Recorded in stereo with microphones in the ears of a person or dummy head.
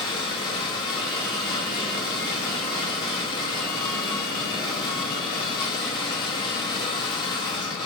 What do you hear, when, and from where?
0.0 s a machine running: 25° left (ahead or behind), 2.5 m